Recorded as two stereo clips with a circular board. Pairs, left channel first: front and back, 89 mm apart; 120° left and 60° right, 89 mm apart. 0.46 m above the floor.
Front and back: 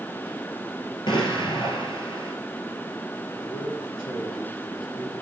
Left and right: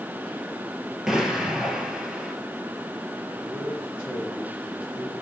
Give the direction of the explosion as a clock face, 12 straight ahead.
11 o'clock.